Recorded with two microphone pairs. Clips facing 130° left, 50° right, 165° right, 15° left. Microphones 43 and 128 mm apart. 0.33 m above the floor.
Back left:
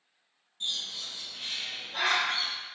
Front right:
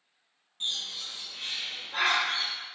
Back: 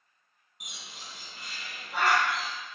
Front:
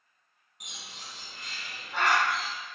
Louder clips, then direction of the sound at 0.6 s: Front right 1 dB, even; 85° right.